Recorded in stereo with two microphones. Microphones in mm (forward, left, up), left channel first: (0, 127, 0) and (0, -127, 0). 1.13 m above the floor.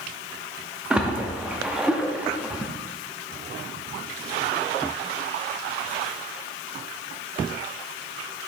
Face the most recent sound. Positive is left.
turn(degrees=-5)  # may be behind; listen again after turning